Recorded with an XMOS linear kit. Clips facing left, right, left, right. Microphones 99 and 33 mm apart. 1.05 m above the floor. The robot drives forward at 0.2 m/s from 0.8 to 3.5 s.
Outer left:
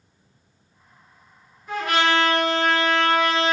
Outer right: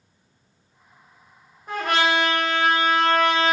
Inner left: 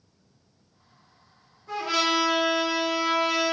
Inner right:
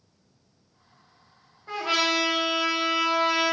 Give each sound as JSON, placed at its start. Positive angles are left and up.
{"t": 1.7, "sound": "a trumpet", "side_deg": -45, "distance_m": 1.0}